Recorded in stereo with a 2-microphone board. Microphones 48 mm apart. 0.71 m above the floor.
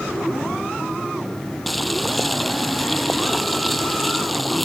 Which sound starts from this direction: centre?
Boiling, at 1.7 s.